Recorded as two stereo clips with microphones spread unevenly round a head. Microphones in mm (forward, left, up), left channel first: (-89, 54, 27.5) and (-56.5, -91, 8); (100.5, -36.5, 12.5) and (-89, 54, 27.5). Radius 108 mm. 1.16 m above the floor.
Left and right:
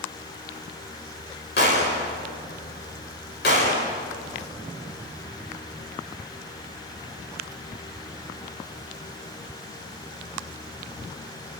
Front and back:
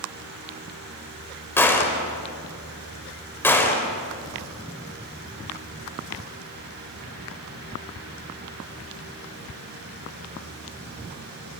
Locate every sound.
1.6 s a gunshot: 55° left, 4.5 m